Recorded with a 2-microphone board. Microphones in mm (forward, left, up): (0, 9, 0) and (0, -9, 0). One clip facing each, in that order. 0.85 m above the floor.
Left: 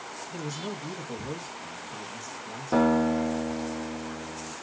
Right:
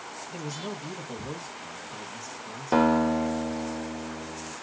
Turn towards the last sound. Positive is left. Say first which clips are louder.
# right 1 dB
turn(degrees=-40)  # may be behind; listen again after turning